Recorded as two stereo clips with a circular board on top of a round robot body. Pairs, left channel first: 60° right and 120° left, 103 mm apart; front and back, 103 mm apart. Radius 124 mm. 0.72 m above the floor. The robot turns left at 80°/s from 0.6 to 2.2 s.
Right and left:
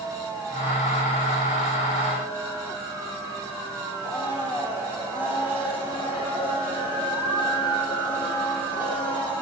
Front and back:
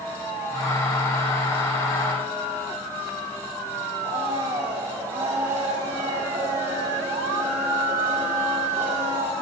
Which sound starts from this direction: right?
A blender, at 4.0 s.